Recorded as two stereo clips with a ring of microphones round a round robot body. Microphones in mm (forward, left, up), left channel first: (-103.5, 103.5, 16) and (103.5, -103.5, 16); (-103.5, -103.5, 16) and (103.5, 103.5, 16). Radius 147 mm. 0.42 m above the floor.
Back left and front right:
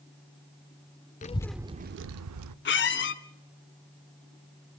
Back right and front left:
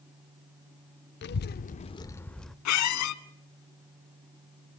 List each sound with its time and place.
1.2 s a child speaking: 170° right, 0.5 m; by 2.5 s 45° right, 0.8 m
2.6 s a squeak: 170° right, 1.5 m